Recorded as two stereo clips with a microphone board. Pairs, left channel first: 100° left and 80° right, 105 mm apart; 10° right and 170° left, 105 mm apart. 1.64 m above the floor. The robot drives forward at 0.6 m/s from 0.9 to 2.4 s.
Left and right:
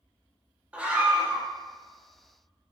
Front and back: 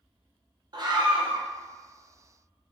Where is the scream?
155° right, 0.9 m; by 1.4 s 165° right, 1.2 m.